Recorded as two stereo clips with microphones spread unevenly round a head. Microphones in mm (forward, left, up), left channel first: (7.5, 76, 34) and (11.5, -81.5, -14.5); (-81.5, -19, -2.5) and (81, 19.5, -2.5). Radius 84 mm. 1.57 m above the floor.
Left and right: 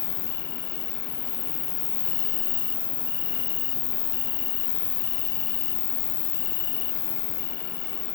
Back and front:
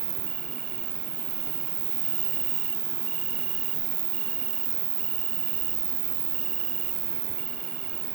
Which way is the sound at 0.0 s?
70° left.